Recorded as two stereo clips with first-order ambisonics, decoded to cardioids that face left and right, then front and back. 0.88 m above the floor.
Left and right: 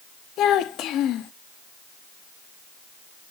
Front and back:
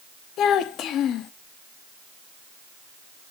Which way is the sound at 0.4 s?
45° left.